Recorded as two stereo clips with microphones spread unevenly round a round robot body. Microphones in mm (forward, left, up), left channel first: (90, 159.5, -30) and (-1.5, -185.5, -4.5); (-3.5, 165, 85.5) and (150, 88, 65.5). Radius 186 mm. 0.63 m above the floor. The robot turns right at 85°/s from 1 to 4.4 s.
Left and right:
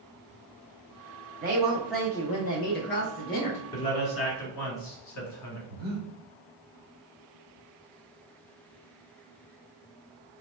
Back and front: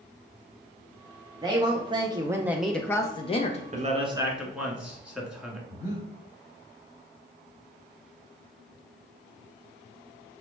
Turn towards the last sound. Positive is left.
turn(degrees=-140)